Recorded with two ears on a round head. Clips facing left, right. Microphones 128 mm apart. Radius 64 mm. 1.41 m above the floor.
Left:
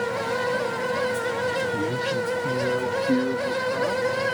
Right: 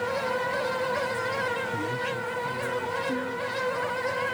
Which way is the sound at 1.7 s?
20° left (ahead or behind).